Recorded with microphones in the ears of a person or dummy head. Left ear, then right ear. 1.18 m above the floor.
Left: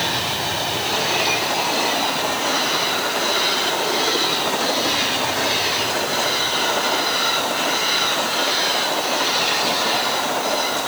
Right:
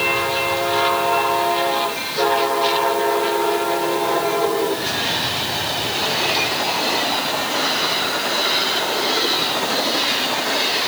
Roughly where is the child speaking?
I don't hear a child speaking.